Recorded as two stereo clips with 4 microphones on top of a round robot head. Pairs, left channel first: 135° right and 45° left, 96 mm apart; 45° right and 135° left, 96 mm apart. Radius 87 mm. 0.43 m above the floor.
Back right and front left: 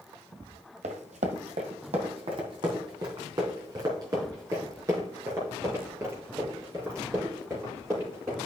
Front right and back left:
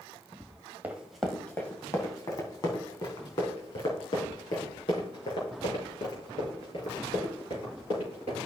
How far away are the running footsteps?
About 1.2 m.